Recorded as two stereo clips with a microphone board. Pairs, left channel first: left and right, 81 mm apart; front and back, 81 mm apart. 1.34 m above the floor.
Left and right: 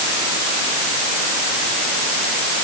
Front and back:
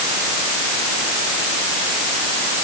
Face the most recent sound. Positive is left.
No sound to turn to.